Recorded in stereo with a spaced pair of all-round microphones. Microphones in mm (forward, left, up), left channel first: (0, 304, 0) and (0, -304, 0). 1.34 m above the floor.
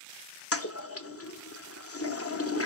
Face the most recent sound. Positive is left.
turn(degrees=25)  # may be behind; listen again after turning